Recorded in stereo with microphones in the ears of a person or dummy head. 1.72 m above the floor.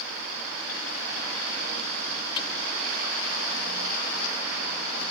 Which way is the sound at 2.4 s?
30° left (ahead or behind).